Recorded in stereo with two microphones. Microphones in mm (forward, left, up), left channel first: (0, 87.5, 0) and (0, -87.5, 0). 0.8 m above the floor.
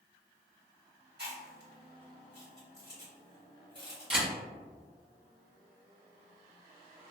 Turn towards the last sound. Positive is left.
turn(degrees=-30)  # may be behind; listen again after turning